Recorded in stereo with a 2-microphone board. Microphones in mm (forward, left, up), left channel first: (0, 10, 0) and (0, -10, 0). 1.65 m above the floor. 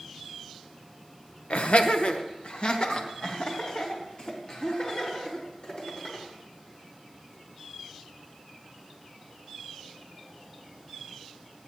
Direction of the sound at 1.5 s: 85° left.